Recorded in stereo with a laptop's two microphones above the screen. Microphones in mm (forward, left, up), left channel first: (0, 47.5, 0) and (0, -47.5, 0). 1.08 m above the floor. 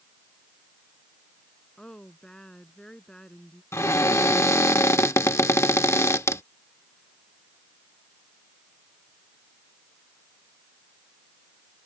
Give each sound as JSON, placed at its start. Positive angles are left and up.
{"t": 1.8, "sound": "a woman speaking", "side_deg": 10}
{"t": 3.7, "sound": "a cupboard door", "side_deg": 30}